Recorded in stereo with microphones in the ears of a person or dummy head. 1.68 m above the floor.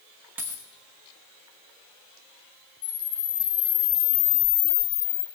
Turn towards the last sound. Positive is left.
turn(degrees=45)  # may be behind; listen again after turning